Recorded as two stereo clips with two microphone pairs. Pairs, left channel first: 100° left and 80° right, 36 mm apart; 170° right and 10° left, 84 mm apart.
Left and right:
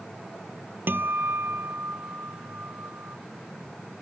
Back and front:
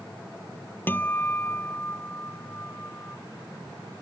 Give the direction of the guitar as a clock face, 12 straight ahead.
3 o'clock.